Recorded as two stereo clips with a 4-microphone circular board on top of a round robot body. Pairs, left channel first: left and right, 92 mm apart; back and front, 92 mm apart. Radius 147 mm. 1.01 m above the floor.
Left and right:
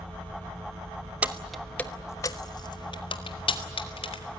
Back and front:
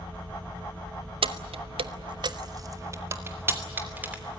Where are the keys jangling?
15° right, 1.2 m; by 4.2 s 75° left, 3 m.